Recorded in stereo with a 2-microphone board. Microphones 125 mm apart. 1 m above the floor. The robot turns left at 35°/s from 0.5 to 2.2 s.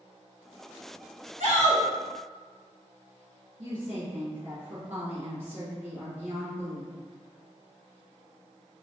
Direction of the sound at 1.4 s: 80° right.